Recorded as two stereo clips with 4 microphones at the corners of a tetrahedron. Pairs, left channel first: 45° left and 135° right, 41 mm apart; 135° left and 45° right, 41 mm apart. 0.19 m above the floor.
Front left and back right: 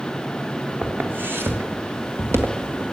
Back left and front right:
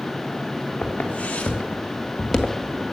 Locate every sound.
0.8 s footsteps: 175° right, 3 m; by 2.8 s 120° right, 2 m